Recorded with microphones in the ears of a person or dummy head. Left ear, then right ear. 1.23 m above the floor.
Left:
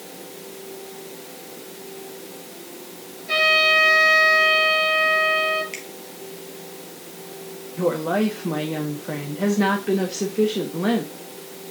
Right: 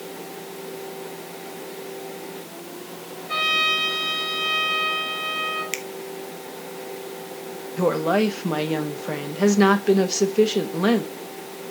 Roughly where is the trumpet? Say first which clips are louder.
Left 4 dB; left.